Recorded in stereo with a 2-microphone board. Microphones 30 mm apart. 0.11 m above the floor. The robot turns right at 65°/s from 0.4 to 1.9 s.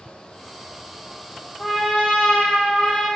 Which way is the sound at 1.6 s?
5° left (ahead or behind).